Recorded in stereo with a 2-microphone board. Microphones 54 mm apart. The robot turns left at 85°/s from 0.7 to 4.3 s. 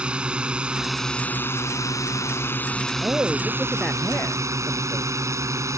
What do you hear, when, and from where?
0.0 s a drone: 160° right; by 5.8 s 105° right
3.0 s a man speaking: 125° right; by 5.1 s 125° left